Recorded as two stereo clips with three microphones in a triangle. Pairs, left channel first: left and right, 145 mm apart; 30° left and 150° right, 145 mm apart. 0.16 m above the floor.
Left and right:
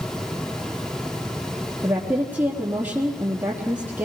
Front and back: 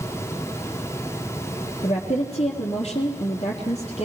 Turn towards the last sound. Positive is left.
turn(degrees=-15)